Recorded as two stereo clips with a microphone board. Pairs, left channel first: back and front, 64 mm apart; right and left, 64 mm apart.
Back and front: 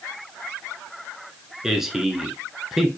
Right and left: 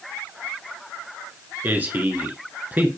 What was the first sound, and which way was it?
A man speaking, 75° left.